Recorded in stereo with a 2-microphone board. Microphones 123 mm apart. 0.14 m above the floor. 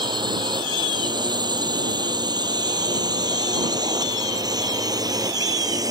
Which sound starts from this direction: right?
A drone, at 0.0 s.